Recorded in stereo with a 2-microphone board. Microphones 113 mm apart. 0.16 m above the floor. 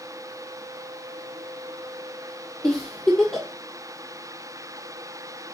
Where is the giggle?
5° left (ahead or behind), 0.9 m.